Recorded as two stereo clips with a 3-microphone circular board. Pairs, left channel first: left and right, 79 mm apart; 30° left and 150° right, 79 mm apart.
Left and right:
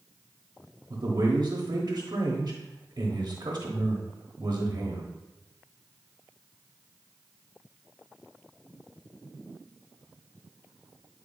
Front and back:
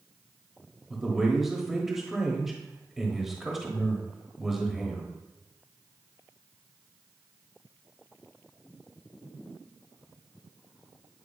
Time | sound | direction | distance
0.9 | a man speaking | 65° right | 1.1 m